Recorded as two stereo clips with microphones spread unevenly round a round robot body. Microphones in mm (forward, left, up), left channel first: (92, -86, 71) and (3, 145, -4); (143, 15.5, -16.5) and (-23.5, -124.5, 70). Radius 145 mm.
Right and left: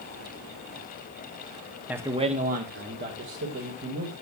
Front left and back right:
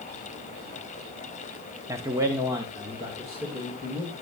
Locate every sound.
1.9 s a man speaking: 100° left, 0.9 m; by 4.1 s 135° left, 2.5 m